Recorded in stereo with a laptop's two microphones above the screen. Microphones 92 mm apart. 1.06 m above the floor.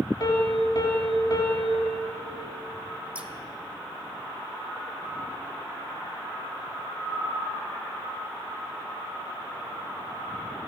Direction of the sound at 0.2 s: 45° left (ahead or behind).